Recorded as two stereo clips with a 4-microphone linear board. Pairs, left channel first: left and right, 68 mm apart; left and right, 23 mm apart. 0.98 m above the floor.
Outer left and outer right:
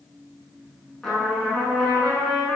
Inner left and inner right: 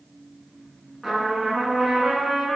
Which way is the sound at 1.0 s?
5° left (ahead or behind).